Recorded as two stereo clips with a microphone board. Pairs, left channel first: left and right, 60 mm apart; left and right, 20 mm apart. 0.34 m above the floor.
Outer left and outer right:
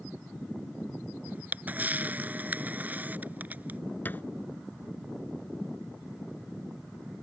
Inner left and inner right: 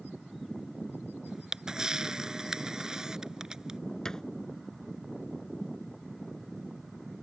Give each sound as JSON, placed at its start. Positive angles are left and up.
{"t": 1.3, "sound": "a camera shutter", "side_deg": -30}
{"t": 4.0, "sound": "a thud", "side_deg": 30}